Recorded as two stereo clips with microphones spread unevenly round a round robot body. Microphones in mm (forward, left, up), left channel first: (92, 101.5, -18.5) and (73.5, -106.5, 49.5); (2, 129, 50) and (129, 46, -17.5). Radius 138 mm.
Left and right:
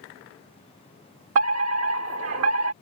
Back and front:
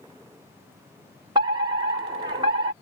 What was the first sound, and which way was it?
A fire alarm, 85° right.